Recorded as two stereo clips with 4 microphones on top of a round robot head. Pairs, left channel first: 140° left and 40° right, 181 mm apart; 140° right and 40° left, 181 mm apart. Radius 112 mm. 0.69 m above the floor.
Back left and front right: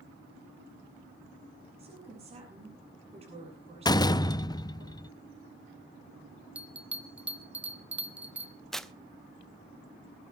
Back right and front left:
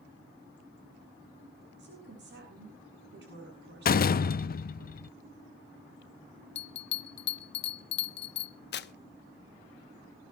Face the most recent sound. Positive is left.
turn(degrees=-135)